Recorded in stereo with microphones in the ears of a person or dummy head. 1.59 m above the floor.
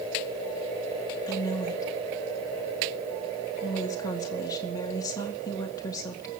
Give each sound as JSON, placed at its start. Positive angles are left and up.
{"t": 1.3, "sound": "a woman speaking", "side_deg": 20, "distance_m": 1.9}